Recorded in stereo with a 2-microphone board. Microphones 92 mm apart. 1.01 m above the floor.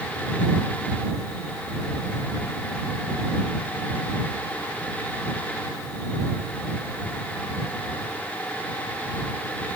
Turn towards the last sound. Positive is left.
No sound to turn to.